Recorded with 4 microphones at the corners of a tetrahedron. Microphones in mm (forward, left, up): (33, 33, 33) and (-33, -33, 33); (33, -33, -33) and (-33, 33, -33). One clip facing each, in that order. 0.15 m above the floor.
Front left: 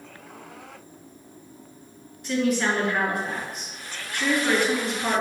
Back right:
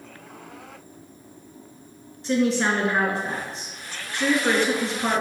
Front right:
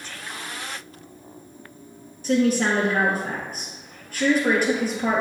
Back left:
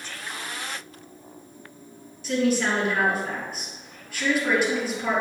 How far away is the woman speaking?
About 2.5 m.